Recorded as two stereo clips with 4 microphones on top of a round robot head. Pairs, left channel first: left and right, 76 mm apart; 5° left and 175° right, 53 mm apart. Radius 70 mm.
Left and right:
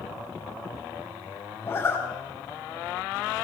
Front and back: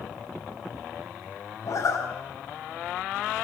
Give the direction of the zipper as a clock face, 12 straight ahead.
11 o'clock.